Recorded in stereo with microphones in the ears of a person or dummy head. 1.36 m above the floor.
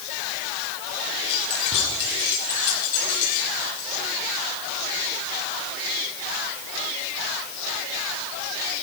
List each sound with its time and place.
1.3 s keys jangling: 35° left (ahead or behind), 5 m; by 3.9 s 50° left (ahead or behind), 6 m